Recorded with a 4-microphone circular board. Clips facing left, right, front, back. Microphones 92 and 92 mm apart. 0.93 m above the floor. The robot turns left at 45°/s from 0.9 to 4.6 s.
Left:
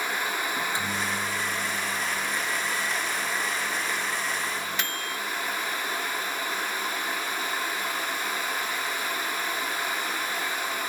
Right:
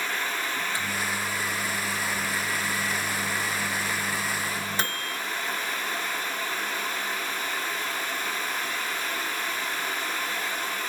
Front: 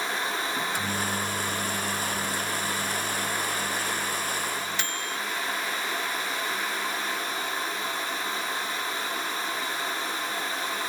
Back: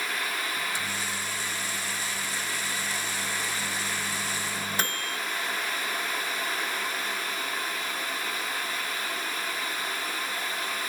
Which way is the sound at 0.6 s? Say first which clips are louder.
Left 1 dB, front 4 dB; 25° left.